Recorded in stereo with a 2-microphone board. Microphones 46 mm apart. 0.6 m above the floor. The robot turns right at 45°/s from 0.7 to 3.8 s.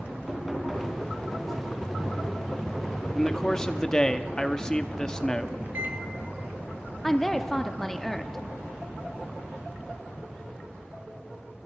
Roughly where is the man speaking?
Centre.